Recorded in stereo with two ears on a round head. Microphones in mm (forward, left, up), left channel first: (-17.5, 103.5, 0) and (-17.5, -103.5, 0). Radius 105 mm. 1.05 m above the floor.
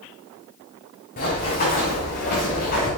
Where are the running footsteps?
35° left (ahead or behind), 5.5 m; by 2.9 s 40° left (ahead or behind), 7.5 m.